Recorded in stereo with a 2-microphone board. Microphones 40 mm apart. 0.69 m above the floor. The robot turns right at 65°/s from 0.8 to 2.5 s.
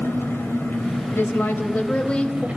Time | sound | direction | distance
0.0 | an engine running | 110° left | 3.5 m
1.1 | a woman speaking | 85° left | 3.5 m